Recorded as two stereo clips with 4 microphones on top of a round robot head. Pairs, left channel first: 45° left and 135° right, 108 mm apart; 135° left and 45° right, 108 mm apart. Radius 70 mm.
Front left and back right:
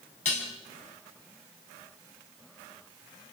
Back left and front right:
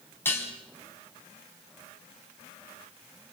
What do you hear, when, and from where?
0.2 s dishes clattering: 65° left, 4.5 m